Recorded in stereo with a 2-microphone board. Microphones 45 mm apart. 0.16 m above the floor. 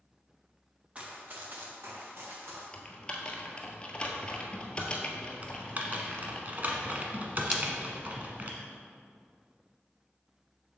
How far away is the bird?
No bird in this recording.